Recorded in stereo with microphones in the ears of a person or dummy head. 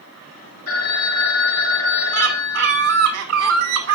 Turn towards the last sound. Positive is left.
turn(degrees=-65)  # may be behind; listen again after turning